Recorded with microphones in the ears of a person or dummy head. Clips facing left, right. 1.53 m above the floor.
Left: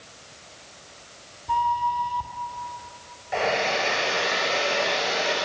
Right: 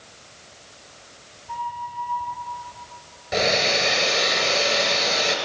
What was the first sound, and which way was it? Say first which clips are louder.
A flute: left 8 dB; 50° left (ahead or behind).